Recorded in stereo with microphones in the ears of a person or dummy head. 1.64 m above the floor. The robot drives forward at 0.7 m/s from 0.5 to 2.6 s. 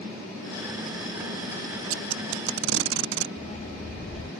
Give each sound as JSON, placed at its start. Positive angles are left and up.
{"t": 1.9, "sound": "tape being pulled", "side_deg": -80}
{"t": 3.4, "sound": "a dog barking", "side_deg": 30}